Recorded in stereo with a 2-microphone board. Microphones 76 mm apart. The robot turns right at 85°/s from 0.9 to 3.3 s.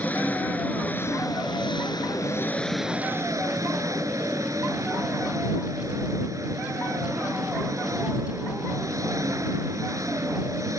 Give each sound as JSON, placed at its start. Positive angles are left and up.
{"t": 0.0, "sound": "an engine running", "azimuth_deg": 20}